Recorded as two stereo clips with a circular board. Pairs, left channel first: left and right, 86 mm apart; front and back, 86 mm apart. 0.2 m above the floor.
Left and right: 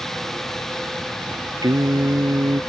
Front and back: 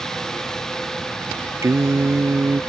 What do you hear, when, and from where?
1.6 s singing: 125° right